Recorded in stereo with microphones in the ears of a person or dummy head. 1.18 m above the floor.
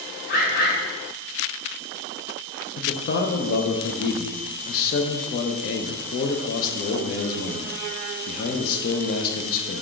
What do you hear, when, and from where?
0.3 s a bird: 60° left (ahead or behind), 1.6 m
2.8 s a man speaking: 50° left (ahead or behind), 0.6 m